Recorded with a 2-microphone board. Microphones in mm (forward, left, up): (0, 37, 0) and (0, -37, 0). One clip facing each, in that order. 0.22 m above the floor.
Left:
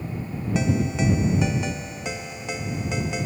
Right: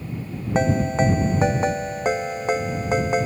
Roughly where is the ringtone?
Right.